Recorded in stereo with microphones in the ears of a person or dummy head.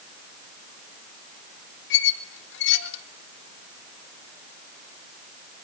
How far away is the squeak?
About 1.4 m.